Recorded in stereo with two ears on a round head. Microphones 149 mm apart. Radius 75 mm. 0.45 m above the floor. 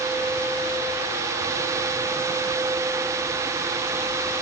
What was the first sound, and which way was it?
Only background noise.